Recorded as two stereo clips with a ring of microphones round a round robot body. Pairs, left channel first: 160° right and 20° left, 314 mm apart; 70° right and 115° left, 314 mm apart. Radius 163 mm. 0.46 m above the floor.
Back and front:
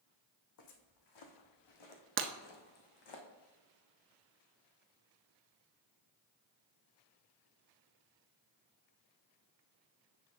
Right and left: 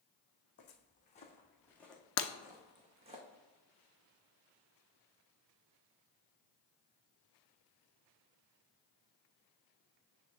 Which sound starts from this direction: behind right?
Footsteps, at 0.6 s.